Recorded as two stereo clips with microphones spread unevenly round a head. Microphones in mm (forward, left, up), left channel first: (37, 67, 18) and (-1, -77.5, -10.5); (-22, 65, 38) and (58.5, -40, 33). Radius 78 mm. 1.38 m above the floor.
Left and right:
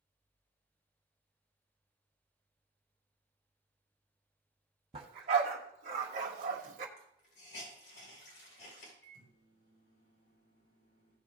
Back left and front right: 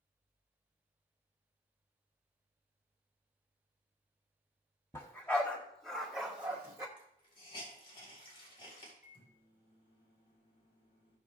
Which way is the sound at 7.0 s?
80° left.